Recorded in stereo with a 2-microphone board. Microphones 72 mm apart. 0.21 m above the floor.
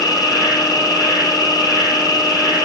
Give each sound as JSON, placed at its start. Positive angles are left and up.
{"t": 0.0, "sound": "an insect", "side_deg": 65, "distance_m": 2.0}